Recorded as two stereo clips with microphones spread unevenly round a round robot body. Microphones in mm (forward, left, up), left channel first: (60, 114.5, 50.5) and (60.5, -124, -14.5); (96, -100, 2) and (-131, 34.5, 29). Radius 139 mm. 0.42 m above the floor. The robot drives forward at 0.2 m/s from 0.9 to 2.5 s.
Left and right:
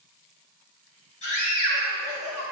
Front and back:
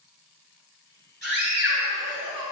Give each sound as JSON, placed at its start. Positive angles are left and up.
{"t": 1.2, "sound": "a scream", "azimuth_deg": 95, "distance_m": 3.0}